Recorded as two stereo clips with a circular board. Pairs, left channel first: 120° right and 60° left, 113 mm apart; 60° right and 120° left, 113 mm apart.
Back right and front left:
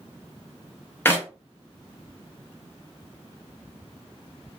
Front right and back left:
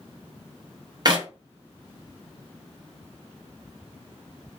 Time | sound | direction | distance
1.1 | a clap | 170° left | 0.9 m